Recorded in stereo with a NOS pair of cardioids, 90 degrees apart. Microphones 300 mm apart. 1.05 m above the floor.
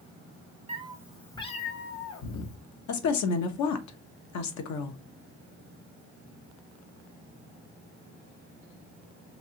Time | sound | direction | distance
0.7 | a cat meowing | 20° right | 0.8 m
2.9 | a woman speaking | 70° left | 0.9 m